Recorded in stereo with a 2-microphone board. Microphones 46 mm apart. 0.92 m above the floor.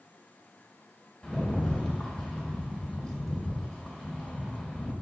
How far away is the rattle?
About 2.5 m.